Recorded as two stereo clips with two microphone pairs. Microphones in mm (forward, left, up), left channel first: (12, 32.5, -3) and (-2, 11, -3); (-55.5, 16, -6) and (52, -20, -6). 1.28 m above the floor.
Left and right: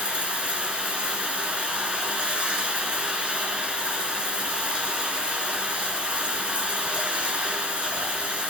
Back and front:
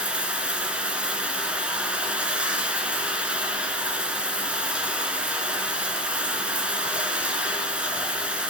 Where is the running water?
95° right, 2.5 m.